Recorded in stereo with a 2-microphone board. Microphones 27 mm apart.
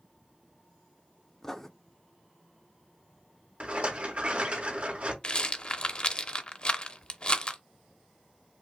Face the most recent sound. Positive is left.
turn(degrees=40)  # may be behind; listen again after turning